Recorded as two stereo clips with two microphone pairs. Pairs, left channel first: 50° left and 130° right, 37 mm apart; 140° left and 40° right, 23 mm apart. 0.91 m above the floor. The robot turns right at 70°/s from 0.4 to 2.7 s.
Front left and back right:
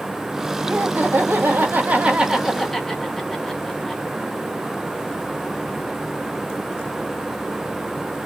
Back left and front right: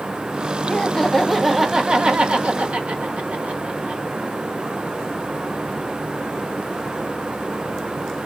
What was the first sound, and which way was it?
Laughter, 170° right.